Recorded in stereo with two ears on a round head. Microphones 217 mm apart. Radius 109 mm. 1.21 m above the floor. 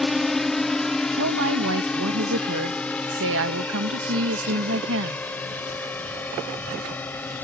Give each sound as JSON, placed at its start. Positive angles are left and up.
{"t": 0.0, "sound": "a drone", "side_deg": 0}
{"t": 1.1, "sound": "a woman speaking", "side_deg": -55}